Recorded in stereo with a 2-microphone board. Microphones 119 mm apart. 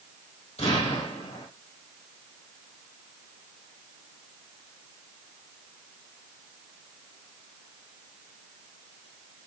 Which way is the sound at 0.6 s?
75° left (ahead or behind).